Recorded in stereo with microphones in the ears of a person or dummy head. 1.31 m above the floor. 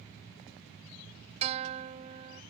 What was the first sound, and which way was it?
A guitar, 35° right (ahead or behind).